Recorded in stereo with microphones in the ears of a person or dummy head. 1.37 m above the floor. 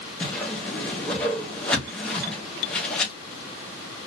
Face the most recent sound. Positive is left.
turn(degrees=5)  # may be behind; listen again after turning